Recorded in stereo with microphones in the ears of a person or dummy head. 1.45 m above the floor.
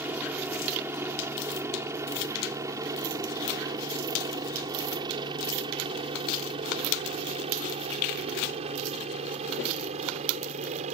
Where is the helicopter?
10° right (ahead or behind); by 10.9 s 40° right (ahead or behind).